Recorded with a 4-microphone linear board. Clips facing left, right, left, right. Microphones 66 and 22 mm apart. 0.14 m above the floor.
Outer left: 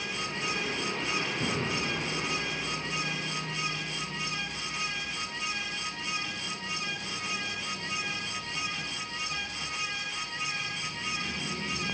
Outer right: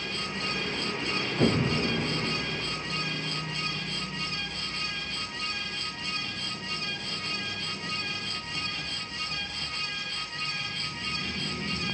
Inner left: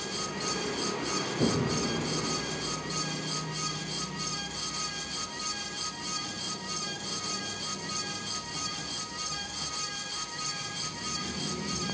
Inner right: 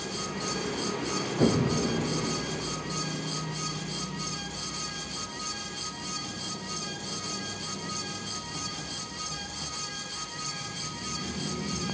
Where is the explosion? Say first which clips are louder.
Outer right 6 dB, inner right 4 dB; 40° right (ahead or behind), 0.8 m.